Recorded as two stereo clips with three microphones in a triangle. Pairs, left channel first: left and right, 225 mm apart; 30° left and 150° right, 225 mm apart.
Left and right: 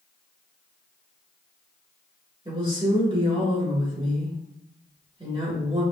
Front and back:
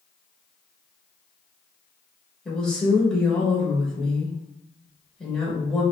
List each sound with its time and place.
2.5 s a woman speaking: 55° right, 0.9 m